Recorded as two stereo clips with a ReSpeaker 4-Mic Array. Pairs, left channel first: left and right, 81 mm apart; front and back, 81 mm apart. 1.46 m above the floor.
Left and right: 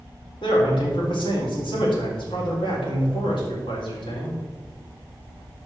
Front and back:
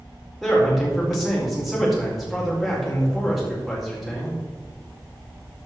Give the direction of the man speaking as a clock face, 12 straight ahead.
9 o'clock.